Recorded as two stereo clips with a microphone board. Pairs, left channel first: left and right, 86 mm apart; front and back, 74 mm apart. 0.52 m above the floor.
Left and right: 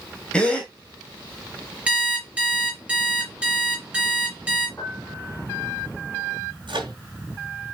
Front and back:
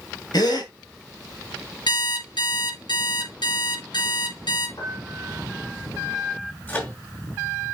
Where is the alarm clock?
15° right, 5.5 m.